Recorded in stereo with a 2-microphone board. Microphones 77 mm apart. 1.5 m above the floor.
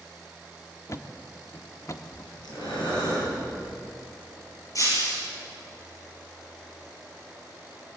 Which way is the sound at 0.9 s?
45° left (ahead or behind).